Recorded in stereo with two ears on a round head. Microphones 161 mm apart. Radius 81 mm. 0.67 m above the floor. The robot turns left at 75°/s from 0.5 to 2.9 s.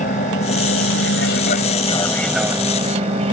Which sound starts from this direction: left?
An aircraft, at 0.0 s.